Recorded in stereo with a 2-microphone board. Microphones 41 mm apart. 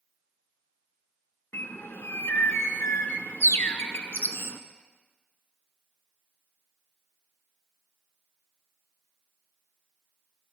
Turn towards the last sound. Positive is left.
turn(degrees=75)  # may be behind; listen again after turning